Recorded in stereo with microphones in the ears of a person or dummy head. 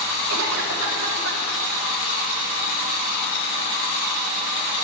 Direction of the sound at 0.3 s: 75° right (ahead or behind).